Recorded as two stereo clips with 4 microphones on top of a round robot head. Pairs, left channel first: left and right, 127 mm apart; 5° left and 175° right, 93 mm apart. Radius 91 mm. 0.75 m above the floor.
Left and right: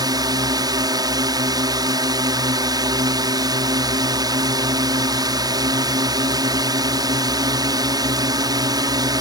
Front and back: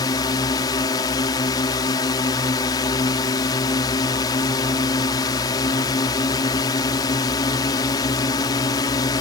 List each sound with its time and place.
0.0 s a drone: 35° right